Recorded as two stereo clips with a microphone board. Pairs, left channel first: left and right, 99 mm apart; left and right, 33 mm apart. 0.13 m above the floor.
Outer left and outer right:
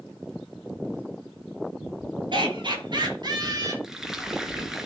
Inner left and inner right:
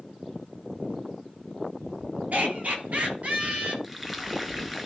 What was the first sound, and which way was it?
Laughter, 55° right (ahead or behind).